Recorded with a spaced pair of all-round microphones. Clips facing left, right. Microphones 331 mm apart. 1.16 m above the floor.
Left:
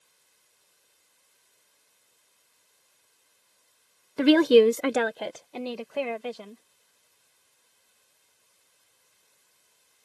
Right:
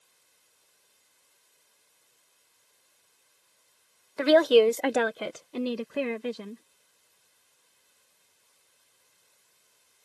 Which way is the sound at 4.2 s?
45° left (ahead or behind).